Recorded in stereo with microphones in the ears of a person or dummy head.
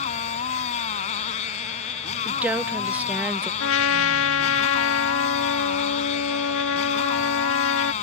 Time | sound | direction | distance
0.0 | a motorcycle | 45° left (ahead or behind) | ?
2.2 | a woman speaking | 10° right (ahead or behind) | ?
3.6 | a trumpet | 75° left (ahead or behind) | ?